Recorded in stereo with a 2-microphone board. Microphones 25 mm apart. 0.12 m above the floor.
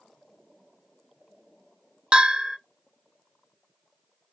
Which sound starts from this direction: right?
A bell, at 2.1 s.